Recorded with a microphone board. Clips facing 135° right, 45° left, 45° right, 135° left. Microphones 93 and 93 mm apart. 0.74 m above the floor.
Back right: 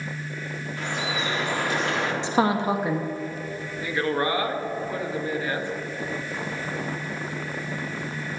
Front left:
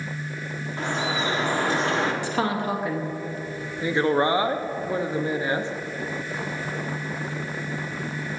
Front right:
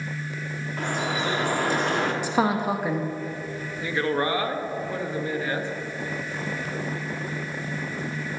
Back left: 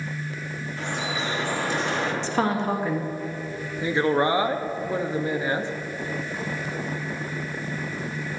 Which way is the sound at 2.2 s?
110° right.